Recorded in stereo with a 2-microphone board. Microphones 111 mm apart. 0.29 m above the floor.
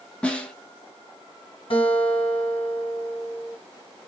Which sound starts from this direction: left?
A guitar, at 1.7 s.